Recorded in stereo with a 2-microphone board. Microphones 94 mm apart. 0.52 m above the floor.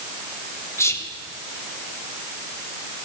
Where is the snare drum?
No snare drum in this recording.